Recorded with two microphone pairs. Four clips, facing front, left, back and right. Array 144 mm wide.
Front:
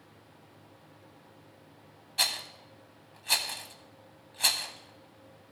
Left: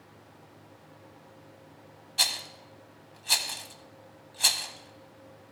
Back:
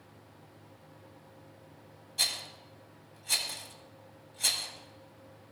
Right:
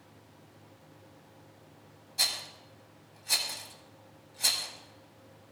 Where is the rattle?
35° left, 1.0 m.